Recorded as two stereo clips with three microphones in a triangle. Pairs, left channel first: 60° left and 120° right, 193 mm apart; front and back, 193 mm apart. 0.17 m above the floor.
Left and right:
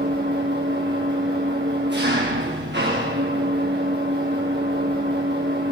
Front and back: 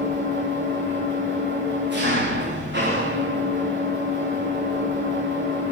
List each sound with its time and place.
0.0 s an engine running: 150° right, 9 m